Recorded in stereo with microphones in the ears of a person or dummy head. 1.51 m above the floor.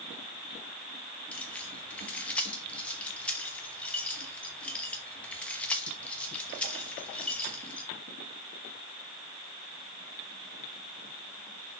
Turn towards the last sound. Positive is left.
turn(degrees=5)  # may be behind; listen again after turning